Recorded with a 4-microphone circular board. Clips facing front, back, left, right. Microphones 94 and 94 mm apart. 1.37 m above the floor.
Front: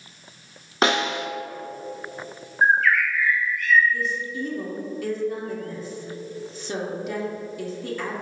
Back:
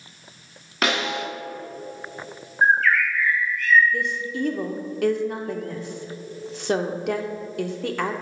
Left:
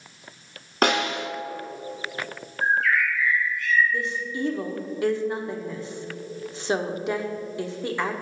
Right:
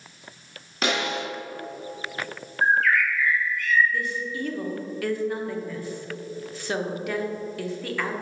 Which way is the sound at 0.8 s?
60° left.